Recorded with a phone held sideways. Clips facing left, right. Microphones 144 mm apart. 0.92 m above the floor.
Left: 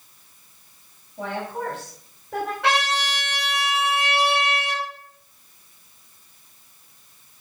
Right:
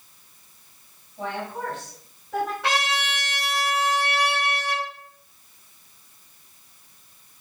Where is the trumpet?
65° left (ahead or behind), 5 m.